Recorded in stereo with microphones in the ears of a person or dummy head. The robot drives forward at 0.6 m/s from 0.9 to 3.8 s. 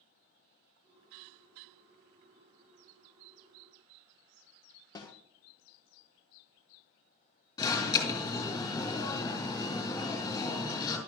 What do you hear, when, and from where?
5.0 s a snare drum: 20° left (ahead or behind), 1.0 m
7.6 s an alarm: 20° left (ahead or behind), 2.5 m